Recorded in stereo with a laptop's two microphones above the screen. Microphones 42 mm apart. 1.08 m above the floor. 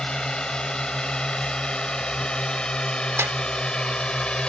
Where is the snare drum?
80° right.